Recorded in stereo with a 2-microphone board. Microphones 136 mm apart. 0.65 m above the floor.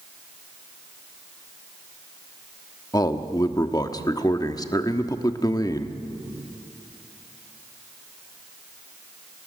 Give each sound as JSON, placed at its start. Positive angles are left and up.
{"t": 2.9, "sound": "a man speaking", "side_deg": 25, "distance_m": 1.2}